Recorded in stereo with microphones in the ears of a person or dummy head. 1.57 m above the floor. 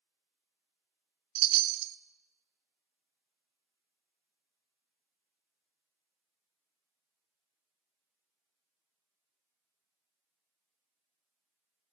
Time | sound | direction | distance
1.4 | a chime | 60° right (ahead or behind) | 0.6 m